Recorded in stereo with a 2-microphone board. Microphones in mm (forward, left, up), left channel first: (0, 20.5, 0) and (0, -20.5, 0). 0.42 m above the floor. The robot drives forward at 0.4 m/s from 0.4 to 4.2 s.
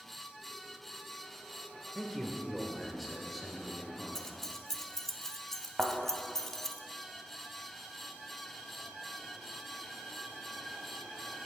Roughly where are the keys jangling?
Centre.